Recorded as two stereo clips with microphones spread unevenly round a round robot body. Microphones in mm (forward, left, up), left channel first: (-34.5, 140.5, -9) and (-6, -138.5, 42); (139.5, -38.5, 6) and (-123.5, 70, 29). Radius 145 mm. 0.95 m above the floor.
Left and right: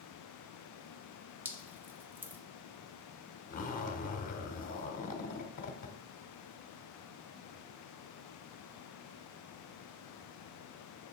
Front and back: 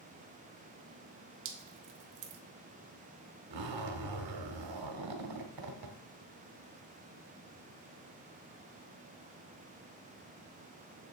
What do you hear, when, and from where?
1.4 s dripping: 170° right, 1.0 m
3.5 s a zipper: 160° left, 1.4 m